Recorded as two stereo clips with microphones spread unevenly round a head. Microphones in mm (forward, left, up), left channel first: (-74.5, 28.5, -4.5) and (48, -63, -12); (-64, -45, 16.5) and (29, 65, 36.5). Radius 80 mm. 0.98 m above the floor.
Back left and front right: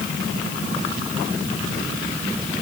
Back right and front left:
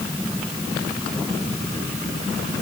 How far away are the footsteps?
No footsteps in this recording.